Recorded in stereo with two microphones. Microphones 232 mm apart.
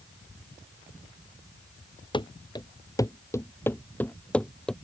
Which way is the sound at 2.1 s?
20° left (ahead or behind).